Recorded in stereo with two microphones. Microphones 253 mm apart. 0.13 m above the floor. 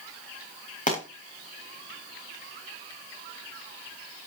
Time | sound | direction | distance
0.9 | a pop | 30° left (ahead or behind) | 4.5 m